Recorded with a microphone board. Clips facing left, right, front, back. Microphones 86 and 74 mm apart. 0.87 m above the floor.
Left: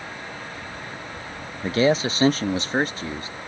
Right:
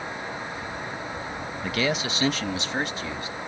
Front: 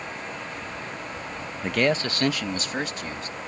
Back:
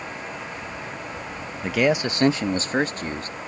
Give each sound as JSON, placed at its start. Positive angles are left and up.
{"t": 1.6, "sound": "a man speaking", "azimuth_deg": 90}